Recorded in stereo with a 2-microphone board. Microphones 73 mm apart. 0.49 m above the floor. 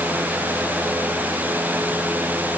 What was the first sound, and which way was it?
Only background noise.